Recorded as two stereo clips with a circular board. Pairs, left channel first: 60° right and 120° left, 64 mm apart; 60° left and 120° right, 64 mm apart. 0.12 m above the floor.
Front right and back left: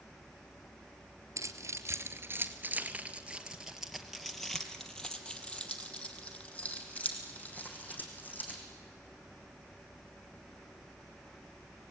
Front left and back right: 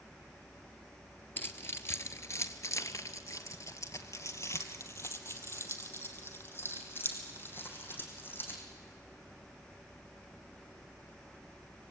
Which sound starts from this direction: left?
Keys jangling, at 1.4 s.